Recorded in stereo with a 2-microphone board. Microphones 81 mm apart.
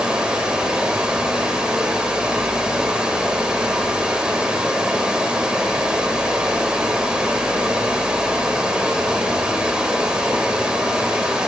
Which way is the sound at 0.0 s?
10° right (ahead or behind).